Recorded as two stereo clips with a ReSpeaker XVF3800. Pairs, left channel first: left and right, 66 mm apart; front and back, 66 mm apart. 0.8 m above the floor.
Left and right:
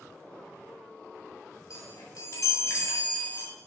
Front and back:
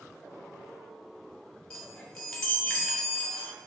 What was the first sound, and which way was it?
A chime, 80° left.